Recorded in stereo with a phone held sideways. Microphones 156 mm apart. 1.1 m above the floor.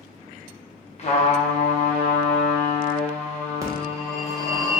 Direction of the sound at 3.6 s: 20° right (ahead or behind).